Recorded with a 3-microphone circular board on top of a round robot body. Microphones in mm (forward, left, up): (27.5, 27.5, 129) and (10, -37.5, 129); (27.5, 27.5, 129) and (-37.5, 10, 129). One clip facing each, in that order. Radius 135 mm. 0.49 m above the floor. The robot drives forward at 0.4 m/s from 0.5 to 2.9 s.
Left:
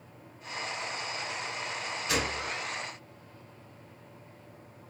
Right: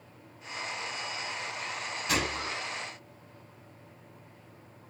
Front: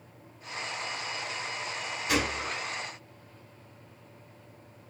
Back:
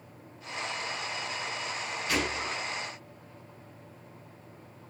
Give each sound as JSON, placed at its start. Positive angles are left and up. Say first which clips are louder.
{"t": 2.1, "sound": "a gunshot", "louder": "right 1 dB, front 2 dB", "azimuth_deg": -60, "distance_m": 0.8}